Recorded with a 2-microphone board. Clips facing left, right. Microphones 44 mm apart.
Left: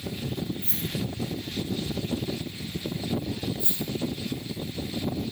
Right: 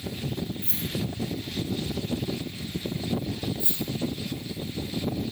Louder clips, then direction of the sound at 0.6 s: Even; 70° right (ahead or behind).